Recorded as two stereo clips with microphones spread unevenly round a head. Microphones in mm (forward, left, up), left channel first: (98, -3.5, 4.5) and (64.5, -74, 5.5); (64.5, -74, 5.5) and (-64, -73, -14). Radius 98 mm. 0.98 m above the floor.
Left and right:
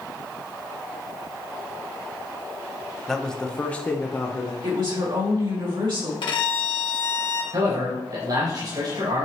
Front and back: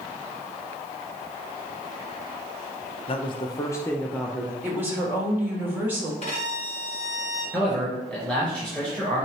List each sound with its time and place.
3.1 s a man speaking: 15° right, 0.8 m; by 4.5 s 110° left, 0.9 m
4.6 s a woman speaking: 105° right, 3.5 m
6.2 s a violin: 60° left, 1.1 m
7.5 s a man speaking: 85° right, 4 m